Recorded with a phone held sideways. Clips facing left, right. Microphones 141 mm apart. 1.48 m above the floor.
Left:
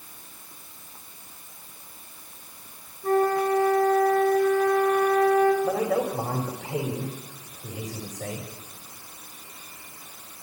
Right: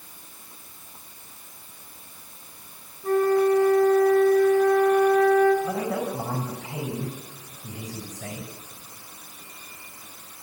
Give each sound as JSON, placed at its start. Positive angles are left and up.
{"t": 3.0, "sound": "a flute", "side_deg": 55, "distance_m": 8.0}
{"t": 5.6, "sound": "a man speaking", "side_deg": 75, "distance_m": 4.0}